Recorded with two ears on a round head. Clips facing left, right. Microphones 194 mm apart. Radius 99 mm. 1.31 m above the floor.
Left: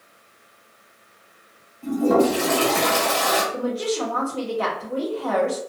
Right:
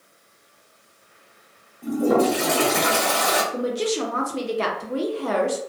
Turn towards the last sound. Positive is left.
turn(degrees=-30)  # may be behind; listen again after turning